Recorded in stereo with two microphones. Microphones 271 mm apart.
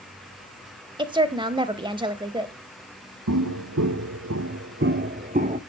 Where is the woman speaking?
15° right (ahead or behind), 1.1 m.